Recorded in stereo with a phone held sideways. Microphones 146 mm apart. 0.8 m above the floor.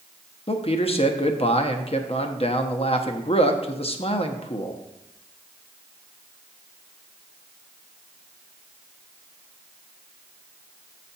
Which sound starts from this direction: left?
A man speaking, at 0.5 s.